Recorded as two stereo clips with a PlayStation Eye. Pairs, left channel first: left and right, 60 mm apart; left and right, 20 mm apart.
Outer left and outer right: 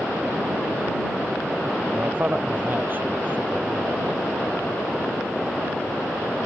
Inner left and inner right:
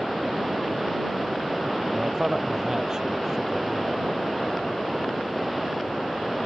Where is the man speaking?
35° right (ahead or behind).